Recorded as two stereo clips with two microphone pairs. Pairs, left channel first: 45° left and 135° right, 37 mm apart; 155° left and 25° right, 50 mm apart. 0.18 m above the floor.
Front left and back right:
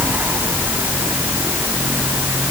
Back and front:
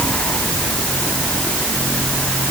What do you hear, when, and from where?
Only background noise.